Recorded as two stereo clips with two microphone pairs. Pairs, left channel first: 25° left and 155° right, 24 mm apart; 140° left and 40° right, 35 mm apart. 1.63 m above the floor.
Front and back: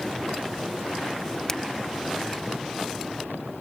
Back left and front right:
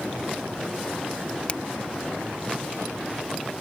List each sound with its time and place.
1.5 s a finger snap: 85° left